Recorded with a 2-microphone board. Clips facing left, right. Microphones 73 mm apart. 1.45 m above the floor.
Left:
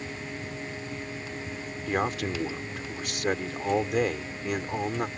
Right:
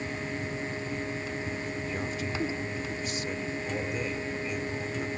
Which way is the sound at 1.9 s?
80° left.